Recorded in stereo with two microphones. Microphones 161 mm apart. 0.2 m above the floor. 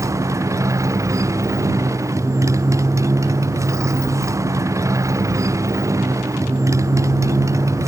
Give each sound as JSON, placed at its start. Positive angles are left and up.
{"t": 0.0, "sound": "a motorcycle", "side_deg": -20}